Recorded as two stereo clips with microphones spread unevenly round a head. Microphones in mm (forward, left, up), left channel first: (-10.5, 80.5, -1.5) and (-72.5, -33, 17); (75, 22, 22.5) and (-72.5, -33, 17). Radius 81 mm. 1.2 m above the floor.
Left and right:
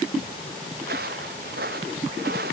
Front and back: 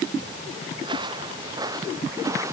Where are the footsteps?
100° right; by 2.5 s 85° right.